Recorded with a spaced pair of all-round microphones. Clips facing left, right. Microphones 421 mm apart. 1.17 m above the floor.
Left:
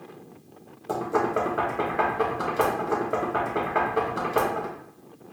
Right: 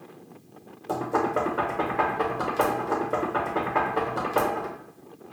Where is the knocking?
5° right (ahead or behind), 0.8 m.